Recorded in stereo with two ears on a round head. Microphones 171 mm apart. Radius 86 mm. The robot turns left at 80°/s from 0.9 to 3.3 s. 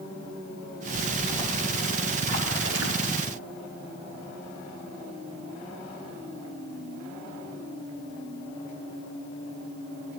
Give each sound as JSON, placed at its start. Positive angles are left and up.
{"t": 0.9, "sound": "a splash", "azimuth_deg": 55, "distance_m": 1.8}